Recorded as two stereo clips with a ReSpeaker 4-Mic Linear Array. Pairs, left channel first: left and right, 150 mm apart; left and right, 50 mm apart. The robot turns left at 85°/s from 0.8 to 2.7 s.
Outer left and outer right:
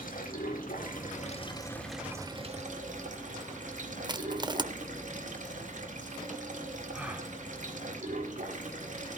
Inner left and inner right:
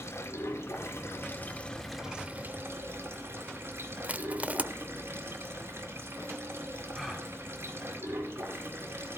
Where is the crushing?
30° right (ahead or behind), 0.6 m.